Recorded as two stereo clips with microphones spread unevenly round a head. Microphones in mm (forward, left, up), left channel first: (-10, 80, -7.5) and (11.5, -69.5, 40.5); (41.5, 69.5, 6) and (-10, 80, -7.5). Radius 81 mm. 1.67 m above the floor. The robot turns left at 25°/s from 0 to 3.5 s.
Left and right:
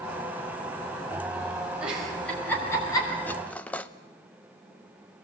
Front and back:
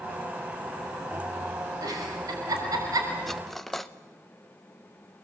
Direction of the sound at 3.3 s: 15° right.